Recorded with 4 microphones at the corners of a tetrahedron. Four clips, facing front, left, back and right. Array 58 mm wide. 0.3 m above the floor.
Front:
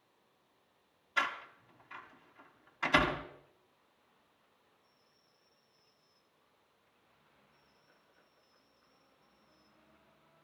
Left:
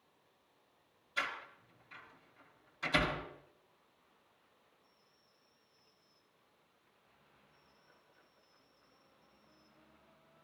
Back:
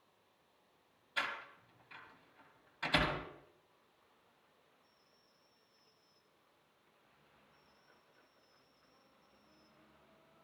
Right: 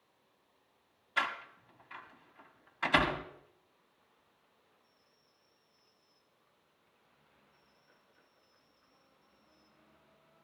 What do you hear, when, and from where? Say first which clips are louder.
1.2 s a door slam: right 5 dB, front 5 dB; 65° right, 1.4 m